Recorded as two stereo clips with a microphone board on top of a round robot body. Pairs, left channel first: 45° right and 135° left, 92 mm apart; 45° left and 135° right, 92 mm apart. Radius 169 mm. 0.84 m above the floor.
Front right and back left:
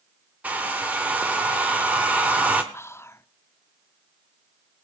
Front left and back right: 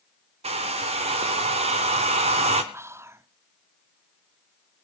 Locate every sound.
0.4 s a hair dryer: 150° right, 0.8 m
2.7 s whispering: 90° right, 0.7 m